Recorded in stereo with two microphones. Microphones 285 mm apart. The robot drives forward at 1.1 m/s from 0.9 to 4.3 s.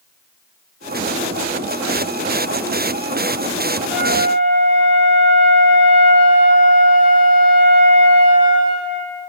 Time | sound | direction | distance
3.9 | a flute | 5° right (ahead or behind) | 8.5 m